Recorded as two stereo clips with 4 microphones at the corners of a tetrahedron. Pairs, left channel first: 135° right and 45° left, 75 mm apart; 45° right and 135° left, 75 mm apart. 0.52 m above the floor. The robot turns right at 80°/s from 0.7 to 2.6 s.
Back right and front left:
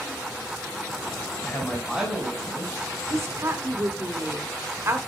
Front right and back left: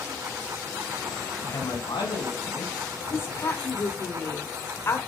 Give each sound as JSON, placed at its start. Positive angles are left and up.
{"t": 1.4, "sound": "a man speaking", "azimuth_deg": -85, "distance_m": 3.5}
{"t": 3.1, "sound": "a woman speaking", "azimuth_deg": 0, "distance_m": 1.4}